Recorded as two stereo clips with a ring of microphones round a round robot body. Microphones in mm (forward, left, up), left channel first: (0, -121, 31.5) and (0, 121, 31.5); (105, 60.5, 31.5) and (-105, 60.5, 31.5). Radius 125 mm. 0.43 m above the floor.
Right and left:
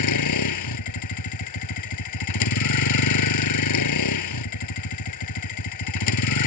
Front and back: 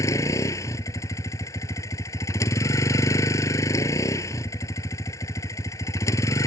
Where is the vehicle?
80° right.